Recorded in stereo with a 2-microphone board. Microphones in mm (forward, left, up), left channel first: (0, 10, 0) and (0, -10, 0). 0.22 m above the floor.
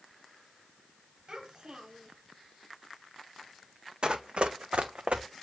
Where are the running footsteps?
45° right (ahead or behind), 0.8 m; by 5.2 s 85° right, 1.2 m.